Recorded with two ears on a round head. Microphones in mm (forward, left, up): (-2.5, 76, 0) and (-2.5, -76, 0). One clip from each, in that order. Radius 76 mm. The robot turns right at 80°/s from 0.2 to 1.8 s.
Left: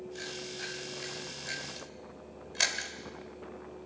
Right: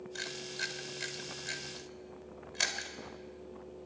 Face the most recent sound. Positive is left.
turn(degrees=5)  # may be behind; listen again after turning